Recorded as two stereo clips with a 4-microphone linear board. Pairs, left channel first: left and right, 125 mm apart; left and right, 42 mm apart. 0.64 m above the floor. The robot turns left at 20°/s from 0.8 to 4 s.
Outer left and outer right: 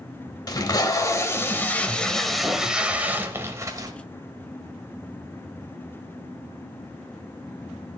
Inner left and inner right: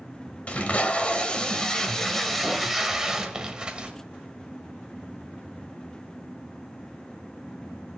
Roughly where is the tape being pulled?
Ahead left.